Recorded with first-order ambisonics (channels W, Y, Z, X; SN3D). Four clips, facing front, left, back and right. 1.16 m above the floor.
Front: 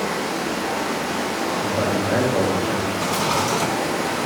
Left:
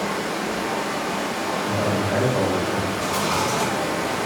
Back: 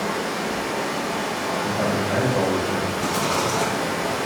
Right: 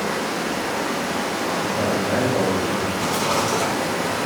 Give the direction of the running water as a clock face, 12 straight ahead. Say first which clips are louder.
Right 1 dB, front 1 dB; 2 o'clock.